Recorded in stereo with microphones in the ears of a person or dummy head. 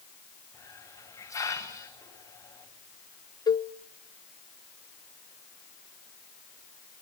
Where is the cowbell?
20° left (ahead or behind), 0.6 m.